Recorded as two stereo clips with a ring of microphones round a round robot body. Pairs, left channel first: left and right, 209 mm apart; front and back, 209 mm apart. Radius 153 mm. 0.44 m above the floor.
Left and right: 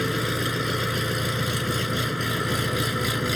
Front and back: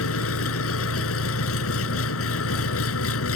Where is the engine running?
Straight ahead.